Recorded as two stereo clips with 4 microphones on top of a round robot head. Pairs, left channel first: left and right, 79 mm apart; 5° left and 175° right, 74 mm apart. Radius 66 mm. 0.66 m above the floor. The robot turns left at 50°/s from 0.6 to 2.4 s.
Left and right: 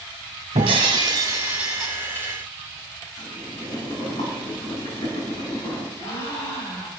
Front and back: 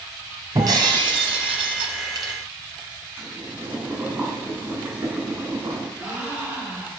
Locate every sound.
0.6 s breaking glass: 120° right, 1.5 m; by 2.3 s 155° left, 1.5 m
3.2 s boiling: 120° left, 6.5 m
6.0 s a gasp: 115° left, 7.5 m